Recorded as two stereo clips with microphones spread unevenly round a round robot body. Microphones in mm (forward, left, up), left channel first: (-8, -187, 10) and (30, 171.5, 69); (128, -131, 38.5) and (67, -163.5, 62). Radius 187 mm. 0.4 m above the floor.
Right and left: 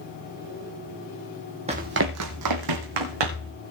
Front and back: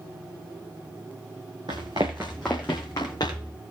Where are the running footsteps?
155° left, 1.2 m; by 3.5 s 100° left, 2.5 m.